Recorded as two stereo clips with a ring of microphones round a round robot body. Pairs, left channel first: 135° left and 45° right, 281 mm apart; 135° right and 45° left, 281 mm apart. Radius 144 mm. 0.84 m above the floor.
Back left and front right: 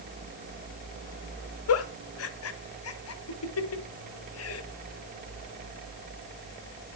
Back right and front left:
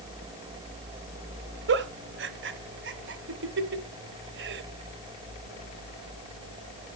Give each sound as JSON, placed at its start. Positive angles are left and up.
{"t": 1.7, "sound": "a giggle", "azimuth_deg": 95, "distance_m": 1.3}